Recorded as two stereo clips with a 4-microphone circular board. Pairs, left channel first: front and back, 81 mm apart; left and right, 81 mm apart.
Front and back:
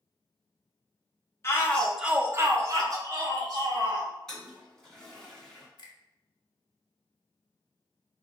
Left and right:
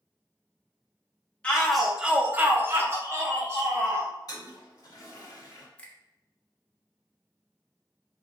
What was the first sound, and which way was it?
A shout, 25° left.